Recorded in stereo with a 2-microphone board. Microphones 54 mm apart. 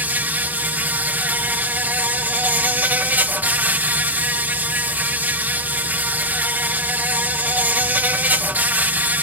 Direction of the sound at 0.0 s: 35° right (ahead or behind).